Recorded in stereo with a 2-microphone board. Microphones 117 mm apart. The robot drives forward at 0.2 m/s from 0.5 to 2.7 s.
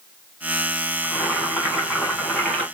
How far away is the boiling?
About 1.5 m.